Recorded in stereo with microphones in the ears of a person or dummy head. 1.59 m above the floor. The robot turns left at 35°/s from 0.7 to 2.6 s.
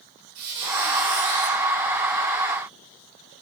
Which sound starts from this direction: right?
A squeak, at 0.3 s.